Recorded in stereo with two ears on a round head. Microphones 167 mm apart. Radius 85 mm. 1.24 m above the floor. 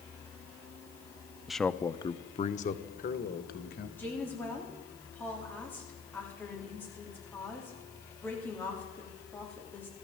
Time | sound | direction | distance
1.5 | a man speaking | 5° right (ahead or behind) | 0.6 m
4.0 | a woman speaking | 10° left (ahead or behind) | 3.5 m